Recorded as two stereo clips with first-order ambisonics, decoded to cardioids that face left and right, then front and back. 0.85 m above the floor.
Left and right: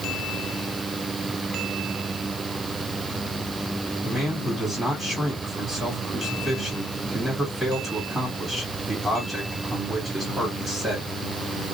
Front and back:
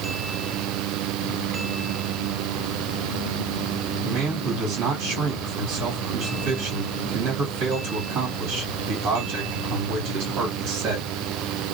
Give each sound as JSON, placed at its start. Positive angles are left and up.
{"t": 4.0, "sound": "a man speaking", "azimuth_deg": 180, "distance_m": 1.7}